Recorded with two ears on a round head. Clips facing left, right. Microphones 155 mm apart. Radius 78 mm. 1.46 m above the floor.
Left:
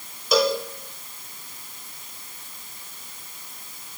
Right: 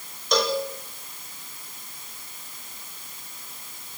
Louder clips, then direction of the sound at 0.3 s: Left 3 dB; 5° left (ahead or behind).